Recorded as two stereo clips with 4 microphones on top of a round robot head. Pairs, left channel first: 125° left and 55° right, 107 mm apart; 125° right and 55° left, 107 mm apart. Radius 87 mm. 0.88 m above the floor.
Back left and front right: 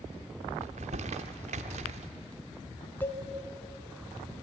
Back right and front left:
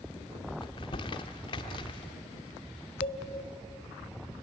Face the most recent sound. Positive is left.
turn(degrees=-160)